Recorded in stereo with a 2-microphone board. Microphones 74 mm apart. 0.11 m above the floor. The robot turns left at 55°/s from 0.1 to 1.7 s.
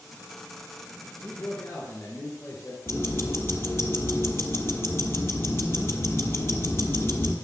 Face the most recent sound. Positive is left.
turn(degrees=35)  # may be behind; listen again after turning